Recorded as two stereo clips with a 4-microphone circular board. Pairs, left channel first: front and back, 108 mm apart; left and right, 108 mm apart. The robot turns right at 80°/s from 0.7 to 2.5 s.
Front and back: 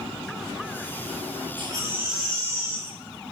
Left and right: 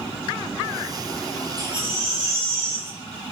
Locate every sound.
1.6 s a baby crying: 140° right, 5 m; by 3.0 s 65° right, 5 m